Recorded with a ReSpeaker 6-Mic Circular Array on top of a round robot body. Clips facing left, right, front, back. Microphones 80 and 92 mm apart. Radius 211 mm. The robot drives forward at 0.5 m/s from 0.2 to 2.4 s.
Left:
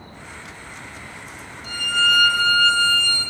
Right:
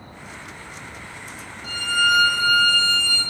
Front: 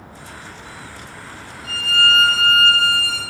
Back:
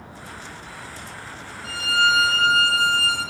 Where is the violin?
125° right, 4.5 m; by 3.2 s 130° right, 5 m.